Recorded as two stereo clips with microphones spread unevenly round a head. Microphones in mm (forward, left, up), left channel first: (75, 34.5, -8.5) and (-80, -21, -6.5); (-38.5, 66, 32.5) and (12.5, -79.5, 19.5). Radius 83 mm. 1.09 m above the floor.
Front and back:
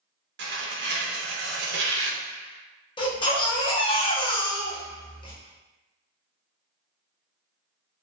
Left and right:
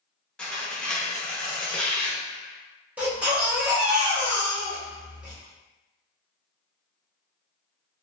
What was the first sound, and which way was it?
Tearing paper, 170° right.